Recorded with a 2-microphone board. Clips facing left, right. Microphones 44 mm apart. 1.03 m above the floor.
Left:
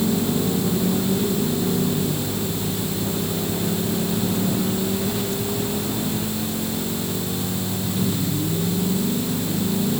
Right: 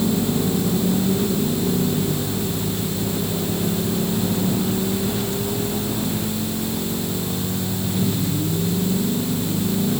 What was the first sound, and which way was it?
Only background noise.